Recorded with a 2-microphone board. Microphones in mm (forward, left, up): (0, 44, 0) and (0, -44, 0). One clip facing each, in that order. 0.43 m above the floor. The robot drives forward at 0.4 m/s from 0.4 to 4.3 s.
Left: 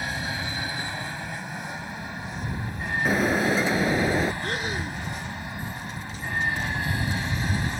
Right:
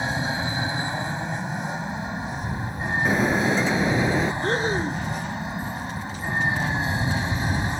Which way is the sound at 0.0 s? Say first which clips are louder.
Right 5 dB; 25° right (ahead or behind).